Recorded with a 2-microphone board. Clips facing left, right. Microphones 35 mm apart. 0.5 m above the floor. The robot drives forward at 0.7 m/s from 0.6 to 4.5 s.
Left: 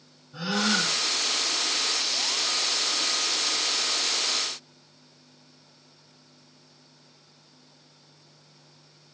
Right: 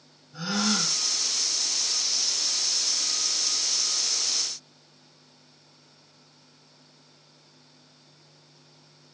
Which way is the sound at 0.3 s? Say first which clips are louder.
Left 2 dB; 30° left (ahead or behind).